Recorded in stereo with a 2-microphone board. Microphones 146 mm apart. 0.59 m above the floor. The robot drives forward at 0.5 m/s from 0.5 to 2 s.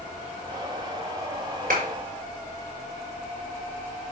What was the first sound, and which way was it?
A clap, 75° right (ahead or behind).